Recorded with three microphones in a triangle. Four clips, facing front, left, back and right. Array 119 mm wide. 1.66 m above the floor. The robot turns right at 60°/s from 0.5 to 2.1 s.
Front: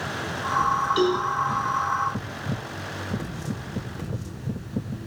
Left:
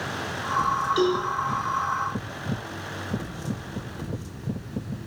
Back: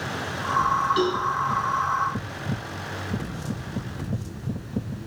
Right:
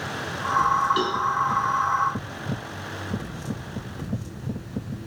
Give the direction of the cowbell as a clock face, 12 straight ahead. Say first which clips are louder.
Left 2 dB, front 2 dB; 3 o'clock.